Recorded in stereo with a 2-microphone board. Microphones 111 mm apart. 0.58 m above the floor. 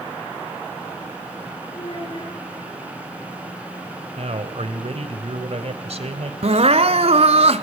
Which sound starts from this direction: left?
A child speaking, at 1.7 s.